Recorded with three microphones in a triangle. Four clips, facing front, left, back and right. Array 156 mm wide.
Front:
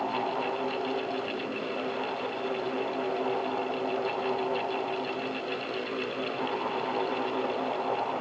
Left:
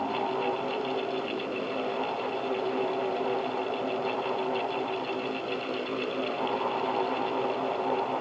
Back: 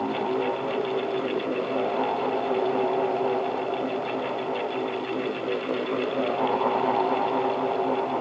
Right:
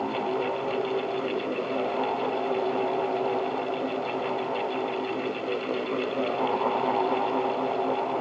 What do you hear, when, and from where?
Only background noise.